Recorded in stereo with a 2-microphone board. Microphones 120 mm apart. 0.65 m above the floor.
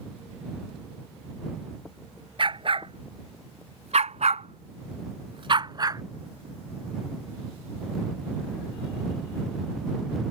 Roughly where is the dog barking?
Right.